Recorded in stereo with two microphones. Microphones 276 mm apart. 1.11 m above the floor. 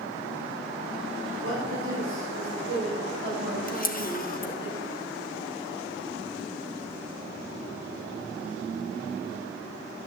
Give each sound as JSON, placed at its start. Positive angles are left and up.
{"t": 1.4, "sound": "a woman speaking", "side_deg": -55, "distance_m": 6.0}
{"t": 3.7, "sound": "a camera shutter", "side_deg": 30, "distance_m": 1.1}